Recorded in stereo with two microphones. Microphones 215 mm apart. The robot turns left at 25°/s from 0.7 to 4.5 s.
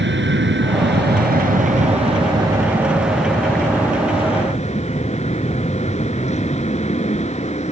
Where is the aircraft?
120° right; by 7.7 s 145° left.